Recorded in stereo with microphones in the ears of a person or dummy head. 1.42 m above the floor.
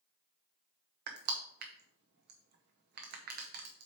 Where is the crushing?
55° right (ahead or behind), 0.9 m.